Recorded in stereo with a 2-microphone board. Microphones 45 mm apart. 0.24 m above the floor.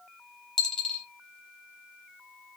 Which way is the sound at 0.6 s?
15° left (ahead or behind).